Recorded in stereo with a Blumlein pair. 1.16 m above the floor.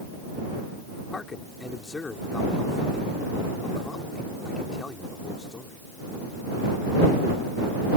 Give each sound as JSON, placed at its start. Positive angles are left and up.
{"t": 1.1, "sound": "a man speaking", "azimuth_deg": 15}